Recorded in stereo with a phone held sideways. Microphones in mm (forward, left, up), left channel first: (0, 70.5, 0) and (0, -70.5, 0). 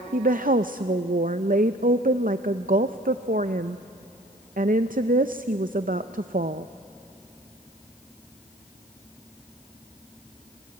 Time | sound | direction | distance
0.1 | a woman speaking | 75° right (ahead or behind) | 0.5 m